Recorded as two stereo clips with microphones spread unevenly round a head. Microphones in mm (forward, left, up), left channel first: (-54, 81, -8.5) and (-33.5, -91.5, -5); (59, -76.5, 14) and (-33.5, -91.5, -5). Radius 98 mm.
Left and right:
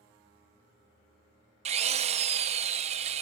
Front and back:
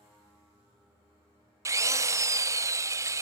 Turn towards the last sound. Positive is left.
turn(degrees=-110)